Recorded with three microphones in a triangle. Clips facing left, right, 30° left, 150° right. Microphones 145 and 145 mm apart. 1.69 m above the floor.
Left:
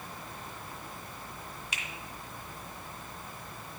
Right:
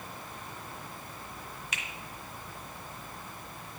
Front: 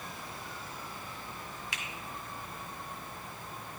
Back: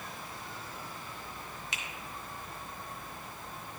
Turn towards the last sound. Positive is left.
turn(degrees=145)